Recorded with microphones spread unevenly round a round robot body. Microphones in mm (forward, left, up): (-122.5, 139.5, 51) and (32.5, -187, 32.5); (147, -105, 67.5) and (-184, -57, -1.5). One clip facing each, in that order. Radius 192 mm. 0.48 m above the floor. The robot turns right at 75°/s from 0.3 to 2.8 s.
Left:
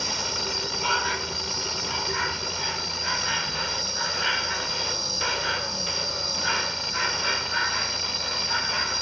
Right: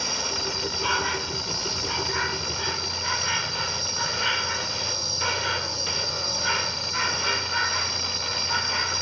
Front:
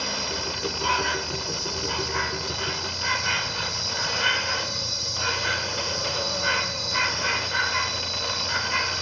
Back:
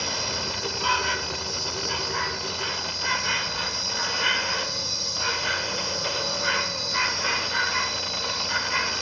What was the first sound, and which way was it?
An insect, 170° right.